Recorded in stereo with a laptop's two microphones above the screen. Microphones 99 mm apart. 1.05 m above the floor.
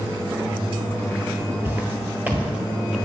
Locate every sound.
1.6 s footsteps: 20° right (ahead or behind), 1.1 m; by 3.0 s 5° right (ahead or behind), 1.3 m